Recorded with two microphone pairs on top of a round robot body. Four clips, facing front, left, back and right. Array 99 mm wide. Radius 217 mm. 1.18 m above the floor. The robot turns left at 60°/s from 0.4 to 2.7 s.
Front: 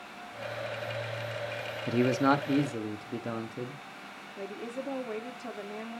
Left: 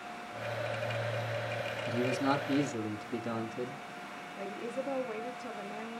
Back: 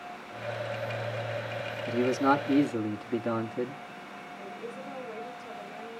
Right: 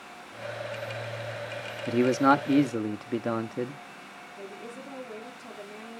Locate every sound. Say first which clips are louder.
1.9 s a man speaking: right 10 dB, even; 50° right, 1.1 m; by 3.8 s 100° right, 1.1 m
4.4 s a woman speaking: left 4 dB, front 4 dB; 10° left, 3 m